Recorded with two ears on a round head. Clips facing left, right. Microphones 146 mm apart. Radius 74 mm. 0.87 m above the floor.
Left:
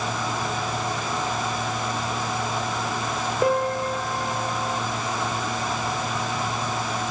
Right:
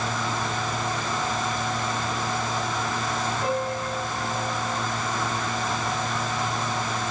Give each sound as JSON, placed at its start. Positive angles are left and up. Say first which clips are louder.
{"t": 3.4, "sound": "a piano", "louder": "left 9 dB", "side_deg": 50, "distance_m": 3.0}